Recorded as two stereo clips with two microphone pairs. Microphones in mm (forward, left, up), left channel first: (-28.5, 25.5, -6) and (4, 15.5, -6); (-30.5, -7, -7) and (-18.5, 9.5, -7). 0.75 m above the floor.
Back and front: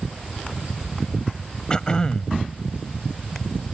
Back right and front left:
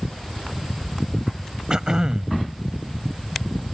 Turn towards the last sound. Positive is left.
turn(degrees=100)